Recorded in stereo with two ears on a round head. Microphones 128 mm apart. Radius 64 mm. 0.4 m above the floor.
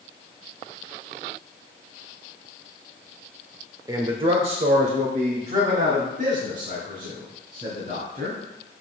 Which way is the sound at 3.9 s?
25° right (ahead or behind).